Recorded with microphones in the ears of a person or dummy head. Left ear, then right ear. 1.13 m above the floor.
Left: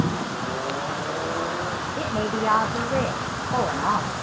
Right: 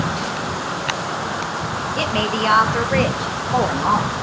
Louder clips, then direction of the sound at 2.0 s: Right 7 dB; 60° right (ahead or behind).